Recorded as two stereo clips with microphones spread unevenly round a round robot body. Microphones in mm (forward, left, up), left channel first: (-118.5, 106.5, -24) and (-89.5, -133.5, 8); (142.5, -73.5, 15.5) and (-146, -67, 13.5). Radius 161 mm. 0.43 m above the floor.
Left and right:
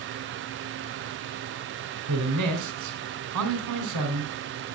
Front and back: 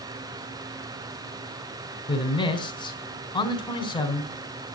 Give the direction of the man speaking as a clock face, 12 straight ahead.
3 o'clock.